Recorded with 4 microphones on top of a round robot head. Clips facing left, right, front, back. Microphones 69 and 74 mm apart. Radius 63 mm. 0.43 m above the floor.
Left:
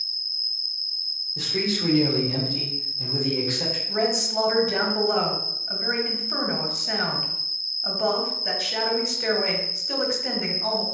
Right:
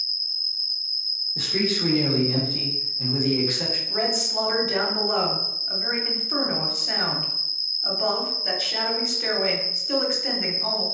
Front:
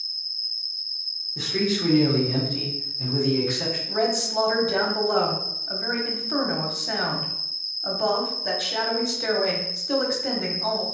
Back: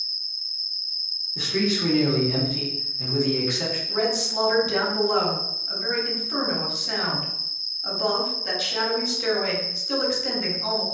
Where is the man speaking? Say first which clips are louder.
Right 1 dB, back 1 dB; 95° right, 1.8 m.